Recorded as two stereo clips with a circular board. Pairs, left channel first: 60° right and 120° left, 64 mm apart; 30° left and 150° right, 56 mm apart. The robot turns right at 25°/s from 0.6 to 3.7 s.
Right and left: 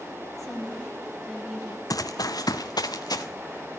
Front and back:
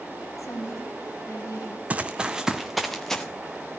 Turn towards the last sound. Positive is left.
turn(degrees=-35)